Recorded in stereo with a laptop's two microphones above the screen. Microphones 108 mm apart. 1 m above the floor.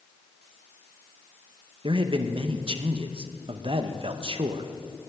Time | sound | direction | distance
1.8 | a man speaking | 55° right (ahead or behind) | 0.6 m